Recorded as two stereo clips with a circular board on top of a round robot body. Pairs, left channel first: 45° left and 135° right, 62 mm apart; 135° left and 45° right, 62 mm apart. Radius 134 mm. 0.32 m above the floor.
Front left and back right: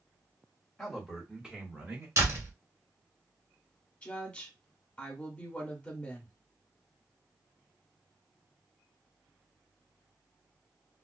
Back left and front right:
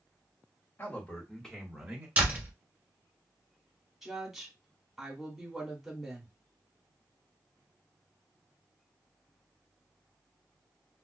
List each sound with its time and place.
0.8 s a man speaking: 135° left, 1.6 m; by 2.1 s 110° right, 1.5 m
2.2 s a door slam: 105° right, 1.5 m
4.0 s a woman speaking: 30° left, 1.4 m